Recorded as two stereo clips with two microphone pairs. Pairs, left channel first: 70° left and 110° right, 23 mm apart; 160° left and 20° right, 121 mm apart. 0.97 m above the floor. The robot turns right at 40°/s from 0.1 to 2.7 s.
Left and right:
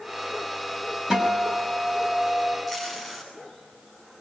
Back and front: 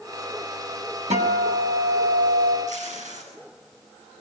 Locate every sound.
1.1 s a guitar: 45° right, 6 m; by 2.6 s 15° left, 6 m
2.7 s tape being pulled: 15° right, 10 m